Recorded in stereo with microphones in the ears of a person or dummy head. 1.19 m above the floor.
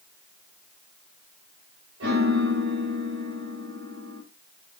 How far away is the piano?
About 6.5 m.